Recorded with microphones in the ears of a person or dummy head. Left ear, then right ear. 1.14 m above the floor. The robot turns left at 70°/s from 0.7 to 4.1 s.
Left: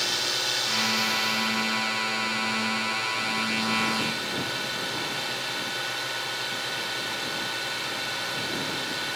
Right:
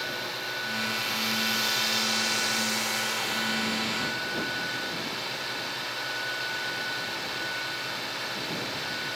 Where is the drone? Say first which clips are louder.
Left 6 dB; 35° left; by 9.2 s 160° left.